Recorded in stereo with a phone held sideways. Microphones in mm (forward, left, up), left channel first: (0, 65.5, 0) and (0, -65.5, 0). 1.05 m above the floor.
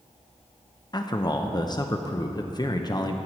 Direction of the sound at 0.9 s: 30° left (ahead or behind).